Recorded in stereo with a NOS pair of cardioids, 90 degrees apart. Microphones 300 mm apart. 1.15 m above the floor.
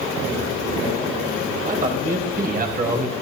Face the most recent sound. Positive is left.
turn(degrees=-30)